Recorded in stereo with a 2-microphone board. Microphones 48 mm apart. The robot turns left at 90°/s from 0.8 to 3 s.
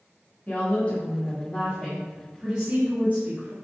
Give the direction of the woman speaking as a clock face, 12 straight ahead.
8 o'clock.